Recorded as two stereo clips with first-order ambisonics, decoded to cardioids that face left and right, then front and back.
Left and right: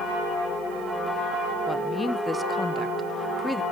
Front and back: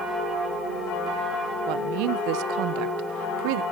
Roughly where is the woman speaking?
Behind.